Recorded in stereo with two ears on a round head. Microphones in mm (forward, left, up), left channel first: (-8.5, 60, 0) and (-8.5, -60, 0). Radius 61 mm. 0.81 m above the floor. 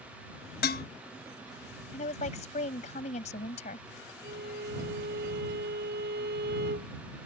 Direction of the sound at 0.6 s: 85° left.